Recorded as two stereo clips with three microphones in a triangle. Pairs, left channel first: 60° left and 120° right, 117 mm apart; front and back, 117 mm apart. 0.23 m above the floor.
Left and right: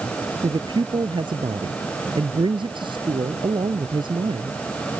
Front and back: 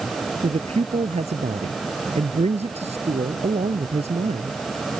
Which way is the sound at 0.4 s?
165° right.